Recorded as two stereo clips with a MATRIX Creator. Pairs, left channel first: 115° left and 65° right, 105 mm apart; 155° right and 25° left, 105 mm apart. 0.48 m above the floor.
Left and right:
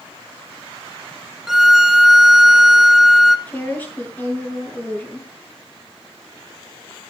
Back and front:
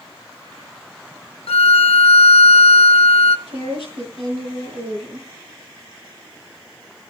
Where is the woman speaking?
40° left, 7.5 m.